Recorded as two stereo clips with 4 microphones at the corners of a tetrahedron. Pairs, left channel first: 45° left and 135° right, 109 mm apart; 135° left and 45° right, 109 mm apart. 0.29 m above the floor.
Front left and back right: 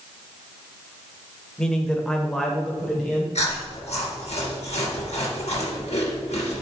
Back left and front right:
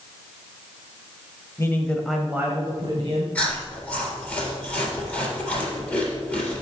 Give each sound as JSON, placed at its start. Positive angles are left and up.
{"t": 1.6, "sound": "a man speaking", "azimuth_deg": 120, "distance_m": 1.3}
{"t": 3.4, "sound": "chewing", "azimuth_deg": 55, "distance_m": 3.0}